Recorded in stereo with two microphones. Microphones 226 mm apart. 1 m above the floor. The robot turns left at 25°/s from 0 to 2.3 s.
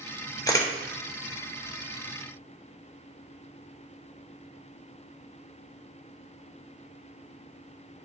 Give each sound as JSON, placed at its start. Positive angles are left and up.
{"t": 0.5, "sound": "a camera shutter", "side_deg": 15, "distance_m": 0.7}